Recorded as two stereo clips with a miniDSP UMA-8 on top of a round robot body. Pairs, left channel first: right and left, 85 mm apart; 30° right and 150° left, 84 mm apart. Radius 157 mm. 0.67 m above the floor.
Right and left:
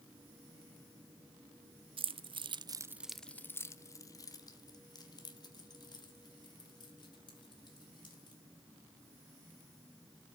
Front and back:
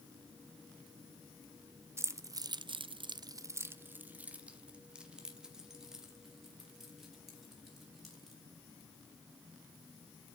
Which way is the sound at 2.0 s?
90° left.